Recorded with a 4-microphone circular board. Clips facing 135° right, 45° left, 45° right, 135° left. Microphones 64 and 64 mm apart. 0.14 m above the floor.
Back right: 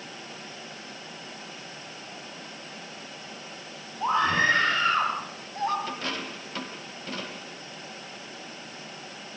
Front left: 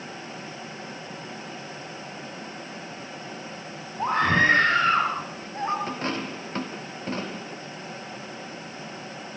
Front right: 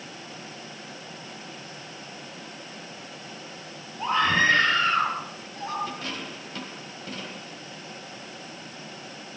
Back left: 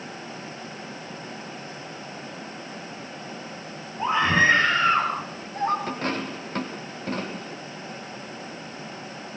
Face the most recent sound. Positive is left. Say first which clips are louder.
# front left 4 dB, back left 6 dB
turn(degrees=95)